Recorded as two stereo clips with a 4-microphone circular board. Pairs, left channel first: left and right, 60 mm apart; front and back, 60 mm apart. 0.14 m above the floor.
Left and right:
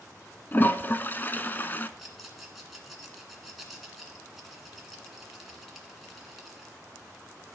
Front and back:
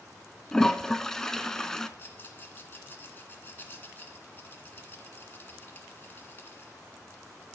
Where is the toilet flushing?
75° left, 0.6 m.